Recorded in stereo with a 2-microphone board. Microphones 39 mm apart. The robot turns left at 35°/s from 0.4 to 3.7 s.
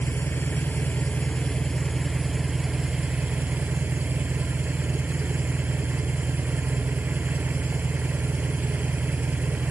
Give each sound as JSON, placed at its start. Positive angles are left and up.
{"t": 0.0, "sound": "an engine running", "azimuth_deg": 65, "distance_m": 0.9}